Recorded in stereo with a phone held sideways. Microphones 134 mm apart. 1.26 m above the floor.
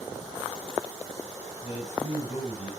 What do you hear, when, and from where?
1.6 s a man speaking: 55° left (ahead or behind), 7 m